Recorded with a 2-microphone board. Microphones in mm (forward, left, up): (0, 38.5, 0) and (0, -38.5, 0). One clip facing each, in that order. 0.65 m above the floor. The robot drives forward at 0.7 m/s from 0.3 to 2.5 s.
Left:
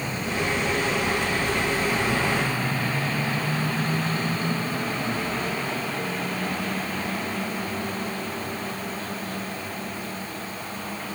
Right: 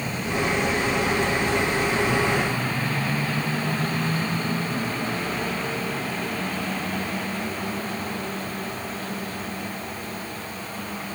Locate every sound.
Only background noise.